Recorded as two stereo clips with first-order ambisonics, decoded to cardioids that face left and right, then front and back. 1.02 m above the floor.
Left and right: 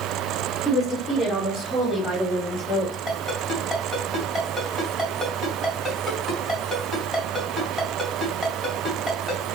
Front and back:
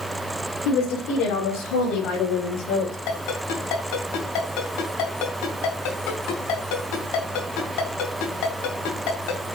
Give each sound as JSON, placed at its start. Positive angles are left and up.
{"t": 0.7, "sound": "a woman speaking", "azimuth_deg": -10, "distance_m": 4.0}
{"t": 3.1, "sound": "a ringtone", "azimuth_deg": 5, "distance_m": 3.0}